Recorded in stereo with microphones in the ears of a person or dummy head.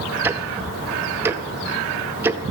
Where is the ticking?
15° right (ahead or behind), 0.5 m.